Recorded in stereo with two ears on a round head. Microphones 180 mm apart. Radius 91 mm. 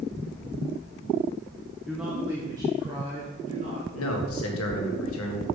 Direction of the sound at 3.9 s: 80° left.